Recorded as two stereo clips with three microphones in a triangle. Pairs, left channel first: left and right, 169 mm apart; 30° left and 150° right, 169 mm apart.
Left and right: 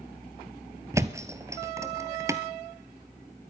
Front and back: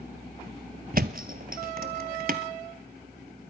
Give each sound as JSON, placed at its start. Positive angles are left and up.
{"t": 0.9, "sound": "a thud", "azimuth_deg": -160, "distance_m": 1.1}